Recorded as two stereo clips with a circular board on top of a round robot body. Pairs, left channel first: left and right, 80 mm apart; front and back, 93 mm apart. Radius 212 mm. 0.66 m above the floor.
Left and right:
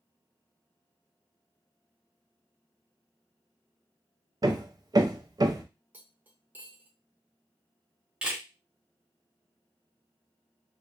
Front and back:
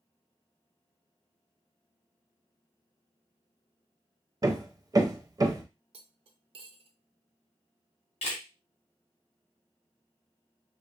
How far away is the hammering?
About 0.6 m.